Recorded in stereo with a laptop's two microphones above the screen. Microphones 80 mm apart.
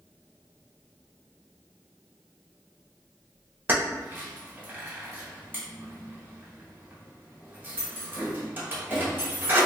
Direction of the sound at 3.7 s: 25° right (ahead or behind).